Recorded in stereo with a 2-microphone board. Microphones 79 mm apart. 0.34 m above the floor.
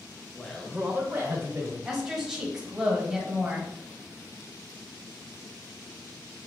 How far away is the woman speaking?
About 1.3 m.